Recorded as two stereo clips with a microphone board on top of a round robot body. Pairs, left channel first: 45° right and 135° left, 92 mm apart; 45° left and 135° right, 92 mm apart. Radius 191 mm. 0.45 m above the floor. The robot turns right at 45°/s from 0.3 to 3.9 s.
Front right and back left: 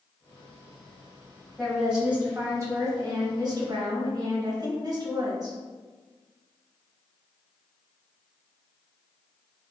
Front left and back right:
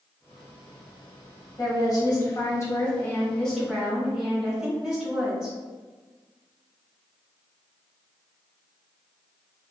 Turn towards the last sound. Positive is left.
turn(degrees=145)